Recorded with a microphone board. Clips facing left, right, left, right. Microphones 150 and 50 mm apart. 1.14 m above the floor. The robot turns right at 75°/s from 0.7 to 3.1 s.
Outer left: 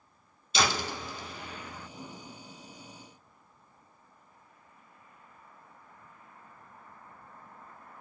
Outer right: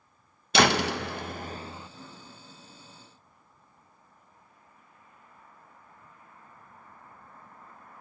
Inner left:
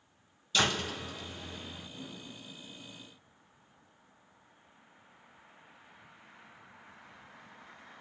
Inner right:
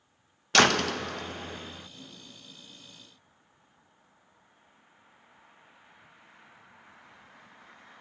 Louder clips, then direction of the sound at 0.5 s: Outer right 7 dB, inner right 8 dB; 105° right.